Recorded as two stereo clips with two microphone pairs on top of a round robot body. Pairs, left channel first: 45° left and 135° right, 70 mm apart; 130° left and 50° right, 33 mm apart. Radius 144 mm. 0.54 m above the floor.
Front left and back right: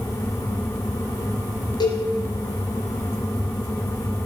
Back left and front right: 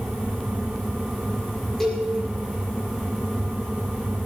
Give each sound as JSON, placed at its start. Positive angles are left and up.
{"t": 1.8, "sound": "a cowbell", "azimuth_deg": 45, "distance_m": 5.5}